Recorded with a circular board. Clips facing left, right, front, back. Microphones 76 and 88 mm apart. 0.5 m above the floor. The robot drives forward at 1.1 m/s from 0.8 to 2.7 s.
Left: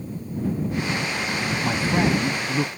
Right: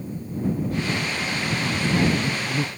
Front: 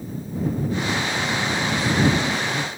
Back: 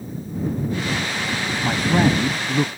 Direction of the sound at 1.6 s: 135° left.